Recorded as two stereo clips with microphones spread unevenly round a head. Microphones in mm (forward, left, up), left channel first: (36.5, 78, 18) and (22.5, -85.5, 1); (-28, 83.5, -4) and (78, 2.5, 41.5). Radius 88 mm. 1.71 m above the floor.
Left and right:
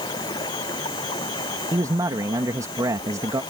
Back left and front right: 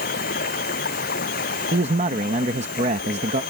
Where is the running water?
155° left.